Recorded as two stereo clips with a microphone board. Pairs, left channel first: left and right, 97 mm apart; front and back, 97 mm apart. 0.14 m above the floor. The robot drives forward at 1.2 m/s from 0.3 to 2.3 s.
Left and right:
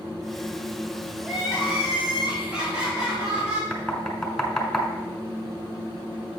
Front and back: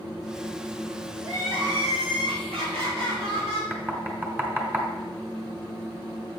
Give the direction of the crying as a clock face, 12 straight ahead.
6 o'clock.